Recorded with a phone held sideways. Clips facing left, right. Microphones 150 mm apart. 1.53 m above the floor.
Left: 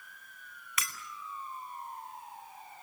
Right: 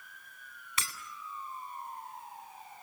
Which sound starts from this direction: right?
Breaking glass, at 0.8 s.